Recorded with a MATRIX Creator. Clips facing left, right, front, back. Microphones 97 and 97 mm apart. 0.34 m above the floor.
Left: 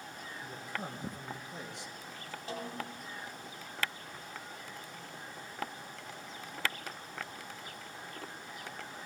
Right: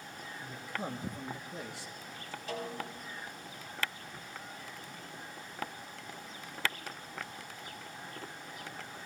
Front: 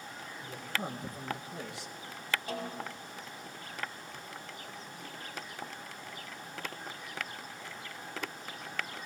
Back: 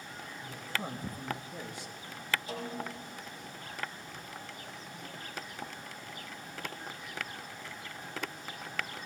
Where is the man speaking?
40° left, 4.5 m; by 2.4 s 5° left, 3.5 m.